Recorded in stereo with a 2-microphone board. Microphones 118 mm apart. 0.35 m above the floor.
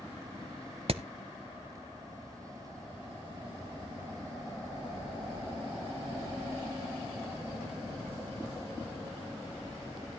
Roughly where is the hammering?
Right.